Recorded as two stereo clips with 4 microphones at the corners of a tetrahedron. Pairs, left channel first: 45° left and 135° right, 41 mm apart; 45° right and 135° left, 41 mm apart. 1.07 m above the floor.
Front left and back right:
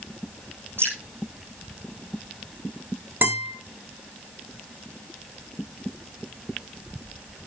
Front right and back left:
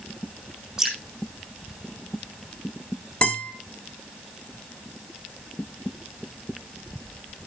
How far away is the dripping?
About 7.5 m.